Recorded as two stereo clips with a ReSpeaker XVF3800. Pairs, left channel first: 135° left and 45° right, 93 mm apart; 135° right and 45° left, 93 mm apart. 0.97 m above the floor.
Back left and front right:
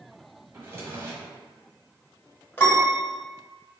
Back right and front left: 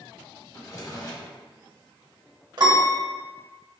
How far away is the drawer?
About 1.2 m.